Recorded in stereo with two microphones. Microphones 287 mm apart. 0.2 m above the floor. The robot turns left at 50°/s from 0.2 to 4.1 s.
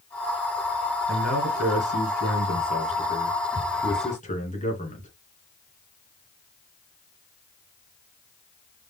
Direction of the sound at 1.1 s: 60° right.